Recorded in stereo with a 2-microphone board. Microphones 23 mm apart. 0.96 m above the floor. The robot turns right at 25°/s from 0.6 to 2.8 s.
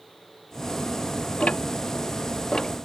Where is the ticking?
60° left (ahead or behind); by 2.7 s 30° left (ahead or behind).